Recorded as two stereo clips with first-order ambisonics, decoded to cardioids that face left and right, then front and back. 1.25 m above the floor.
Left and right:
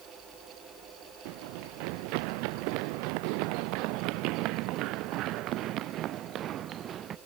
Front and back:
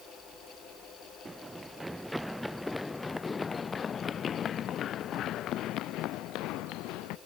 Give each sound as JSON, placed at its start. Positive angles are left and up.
{"t": 1.2, "sound": "running footsteps", "azimuth_deg": -100}